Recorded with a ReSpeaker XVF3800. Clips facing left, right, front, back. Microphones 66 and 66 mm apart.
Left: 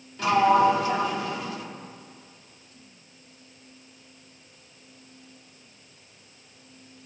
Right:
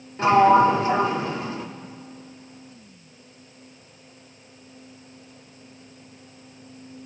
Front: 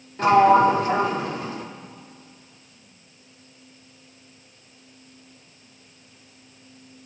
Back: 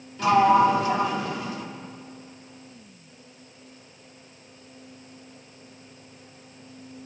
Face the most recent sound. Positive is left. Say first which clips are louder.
# right 4 dB, front 3 dB
turn(degrees=-40)